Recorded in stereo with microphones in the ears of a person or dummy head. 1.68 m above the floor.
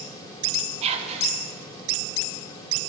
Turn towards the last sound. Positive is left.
turn(degrees=-35)  # may be behind; listen again after turning